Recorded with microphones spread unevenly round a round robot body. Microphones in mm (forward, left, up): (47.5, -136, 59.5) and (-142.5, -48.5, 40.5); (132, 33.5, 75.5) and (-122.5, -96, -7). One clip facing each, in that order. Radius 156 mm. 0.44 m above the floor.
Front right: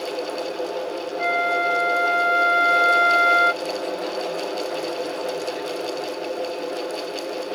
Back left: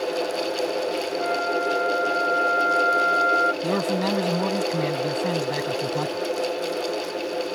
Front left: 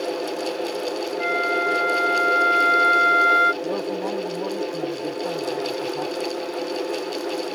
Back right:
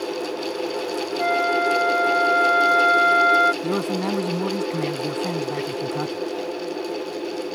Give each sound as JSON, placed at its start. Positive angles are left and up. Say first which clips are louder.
{"t": 1.2, "sound": "a flute", "louder": "even, back right 3 dB", "azimuth_deg": -40}
{"t": 3.6, "sound": "a man speaking", "louder": "back left 3 dB, back right 2 dB", "azimuth_deg": 165}